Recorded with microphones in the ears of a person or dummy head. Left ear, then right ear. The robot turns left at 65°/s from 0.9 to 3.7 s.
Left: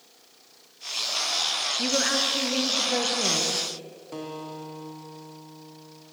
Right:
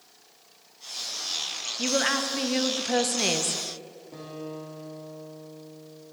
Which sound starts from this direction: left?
A guitar, at 4.1 s.